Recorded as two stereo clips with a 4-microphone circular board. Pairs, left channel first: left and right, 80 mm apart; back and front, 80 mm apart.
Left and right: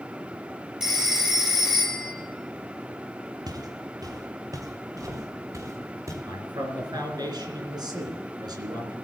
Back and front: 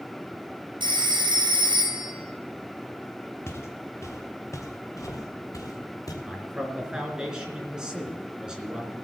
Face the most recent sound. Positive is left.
turn(degrees=-80)